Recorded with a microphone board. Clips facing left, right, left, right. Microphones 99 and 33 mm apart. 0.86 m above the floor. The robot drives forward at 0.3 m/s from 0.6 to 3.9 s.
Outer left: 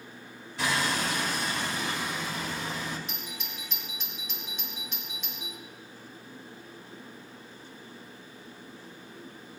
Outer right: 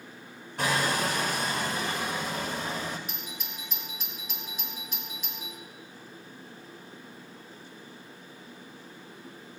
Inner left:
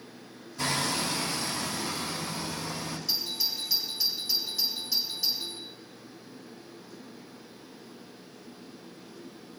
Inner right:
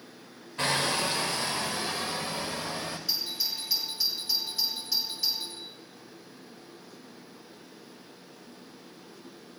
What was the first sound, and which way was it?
Hammering, 50° right (ahead or behind).